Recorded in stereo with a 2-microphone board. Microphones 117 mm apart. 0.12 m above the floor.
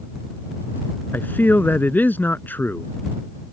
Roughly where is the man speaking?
Centre.